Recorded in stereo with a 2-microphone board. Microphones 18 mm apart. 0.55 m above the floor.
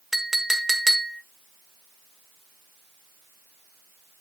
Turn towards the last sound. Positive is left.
turn(degrees=-15)  # may be behind; listen again after turning